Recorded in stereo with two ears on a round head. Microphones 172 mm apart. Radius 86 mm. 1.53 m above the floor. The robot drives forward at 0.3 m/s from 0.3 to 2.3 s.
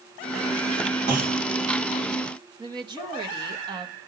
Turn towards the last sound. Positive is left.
turn(degrees=-25)  # may be behind; listen again after turning